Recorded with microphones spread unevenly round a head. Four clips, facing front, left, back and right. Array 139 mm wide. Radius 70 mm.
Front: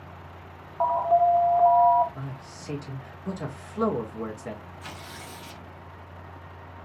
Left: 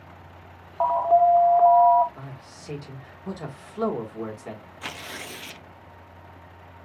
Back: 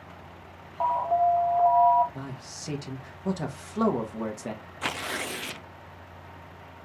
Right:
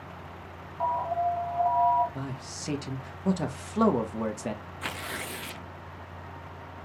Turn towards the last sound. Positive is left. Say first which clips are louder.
# even, back 8 dB
turn(degrees=180)